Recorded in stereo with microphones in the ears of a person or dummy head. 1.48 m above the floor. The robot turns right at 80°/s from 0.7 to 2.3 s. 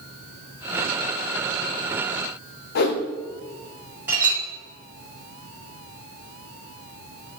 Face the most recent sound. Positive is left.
turn(degrees=-10)  # may be behind; listen again after turning